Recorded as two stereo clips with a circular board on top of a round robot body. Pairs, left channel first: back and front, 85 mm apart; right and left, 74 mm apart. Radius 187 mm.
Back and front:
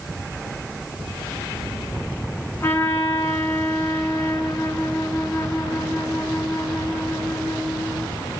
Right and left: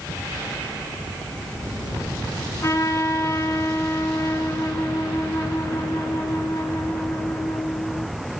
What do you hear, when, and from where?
2.6 s a trumpet: 125° right, 1.7 m